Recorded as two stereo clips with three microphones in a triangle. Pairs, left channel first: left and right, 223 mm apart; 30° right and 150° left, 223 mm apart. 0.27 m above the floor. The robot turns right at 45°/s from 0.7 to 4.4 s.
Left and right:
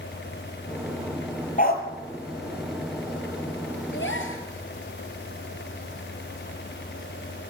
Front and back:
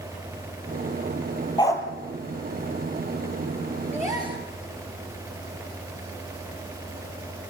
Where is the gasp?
70° left, 4.5 m; by 4.4 s 90° left, 4.5 m.